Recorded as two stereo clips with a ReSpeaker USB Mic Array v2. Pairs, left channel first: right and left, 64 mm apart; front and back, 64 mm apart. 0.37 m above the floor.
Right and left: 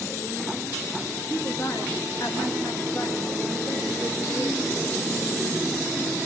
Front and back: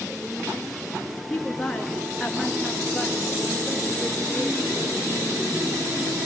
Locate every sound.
1.3 s a woman speaking: 85° right, 5.5 m; by 4.9 s 95° right, 7.5 m